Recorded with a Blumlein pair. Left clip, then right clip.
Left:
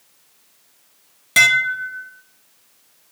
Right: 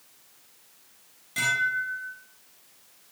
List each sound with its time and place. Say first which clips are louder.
1.4 s dishes clattering: left 11 dB; 50° left, 1.0 m